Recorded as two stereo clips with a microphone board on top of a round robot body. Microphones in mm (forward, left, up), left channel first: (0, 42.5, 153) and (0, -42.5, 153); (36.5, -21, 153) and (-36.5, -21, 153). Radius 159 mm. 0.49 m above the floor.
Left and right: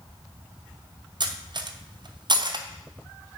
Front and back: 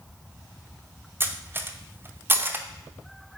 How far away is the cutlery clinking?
About 0.9 m.